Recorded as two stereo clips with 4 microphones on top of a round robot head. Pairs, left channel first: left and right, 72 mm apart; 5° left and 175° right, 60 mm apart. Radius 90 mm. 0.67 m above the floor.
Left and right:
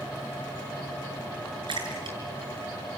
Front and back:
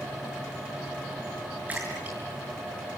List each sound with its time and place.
1.7 s a splash: 105° right, 6.5 m